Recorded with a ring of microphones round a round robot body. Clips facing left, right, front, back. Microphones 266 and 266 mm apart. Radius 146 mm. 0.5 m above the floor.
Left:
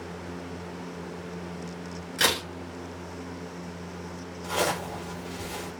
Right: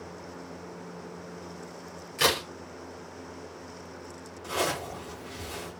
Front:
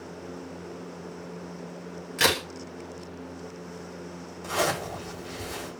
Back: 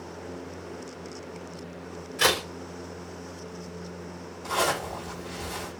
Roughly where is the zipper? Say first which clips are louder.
Left 2 dB, even; ahead left.